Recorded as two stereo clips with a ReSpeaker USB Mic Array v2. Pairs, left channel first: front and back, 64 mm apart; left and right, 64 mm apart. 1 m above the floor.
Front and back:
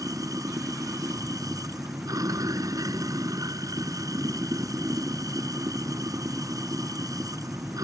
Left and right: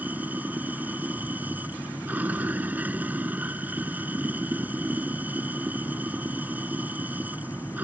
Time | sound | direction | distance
0.0 | running water | 155° right | ?